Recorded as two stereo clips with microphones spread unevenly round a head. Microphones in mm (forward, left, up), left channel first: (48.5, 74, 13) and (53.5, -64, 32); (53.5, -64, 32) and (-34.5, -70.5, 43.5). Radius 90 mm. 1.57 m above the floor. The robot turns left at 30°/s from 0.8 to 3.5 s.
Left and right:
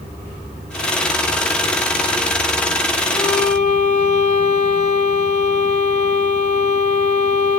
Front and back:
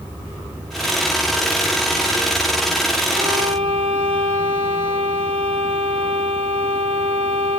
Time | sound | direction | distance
3.1 | a violin | 165° left | 5.5 m